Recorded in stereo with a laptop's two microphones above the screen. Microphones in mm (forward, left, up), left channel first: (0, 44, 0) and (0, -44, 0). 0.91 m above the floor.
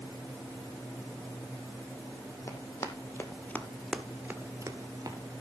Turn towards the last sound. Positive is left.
turn(degrees=-45)  # may be behind; listen again after turning